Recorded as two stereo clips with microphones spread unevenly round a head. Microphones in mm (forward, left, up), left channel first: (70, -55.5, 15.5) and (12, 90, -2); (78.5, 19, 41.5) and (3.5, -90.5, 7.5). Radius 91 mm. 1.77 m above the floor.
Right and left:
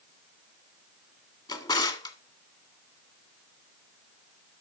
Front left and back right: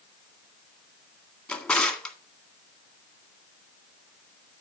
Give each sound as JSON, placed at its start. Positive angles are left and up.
{"t": 1.5, "sound": "a drawer", "azimuth_deg": -15, "distance_m": 1.9}